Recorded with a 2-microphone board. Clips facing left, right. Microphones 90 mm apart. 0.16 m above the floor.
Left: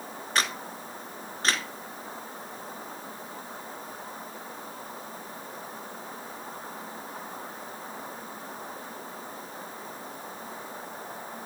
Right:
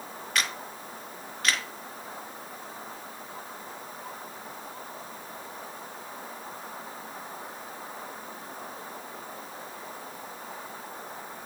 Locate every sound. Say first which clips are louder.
0.3 s a camera shutter: left 2 dB; 35° left (ahead or behind), 1.4 m